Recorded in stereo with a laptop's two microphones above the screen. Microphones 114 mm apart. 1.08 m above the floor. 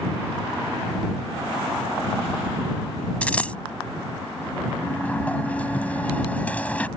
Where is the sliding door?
15° left (ahead or behind).